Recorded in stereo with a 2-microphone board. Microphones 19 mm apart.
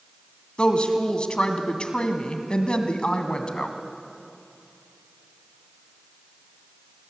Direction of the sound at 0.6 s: 55° left (ahead or behind).